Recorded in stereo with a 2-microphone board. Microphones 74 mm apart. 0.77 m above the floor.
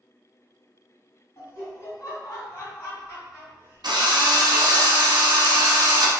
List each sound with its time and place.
1.4 s laughter: 45° left (ahead or behind), 1.8 m
3.8 s a drill: 75° right (ahead or behind), 0.6 m